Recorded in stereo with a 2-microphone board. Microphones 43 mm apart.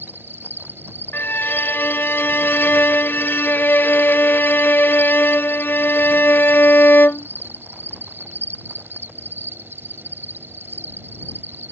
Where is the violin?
55° left (ahead or behind).